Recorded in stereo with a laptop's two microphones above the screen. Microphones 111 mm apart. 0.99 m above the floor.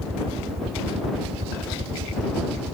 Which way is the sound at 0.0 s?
65° right (ahead or behind).